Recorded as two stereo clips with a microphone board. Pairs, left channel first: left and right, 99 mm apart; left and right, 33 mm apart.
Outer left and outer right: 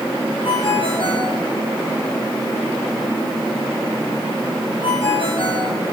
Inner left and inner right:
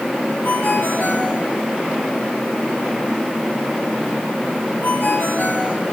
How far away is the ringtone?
About 5 m.